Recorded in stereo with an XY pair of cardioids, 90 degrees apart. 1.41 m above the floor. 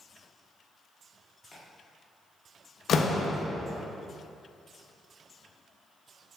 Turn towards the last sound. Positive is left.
turn(degrees=65)